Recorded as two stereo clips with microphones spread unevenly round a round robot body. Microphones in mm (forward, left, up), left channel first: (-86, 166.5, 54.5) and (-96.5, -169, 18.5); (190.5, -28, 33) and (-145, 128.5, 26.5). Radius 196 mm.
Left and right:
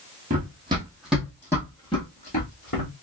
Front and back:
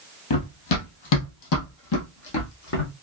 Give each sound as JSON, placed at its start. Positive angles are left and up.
{"t": 0.3, "sound": "running footsteps", "azimuth_deg": -20, "distance_m": 1.3}